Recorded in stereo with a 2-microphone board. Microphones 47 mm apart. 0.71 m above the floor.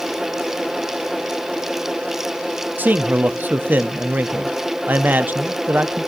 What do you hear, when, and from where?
2.8 s a man speaking: 40° right (ahead or behind), 0.6 m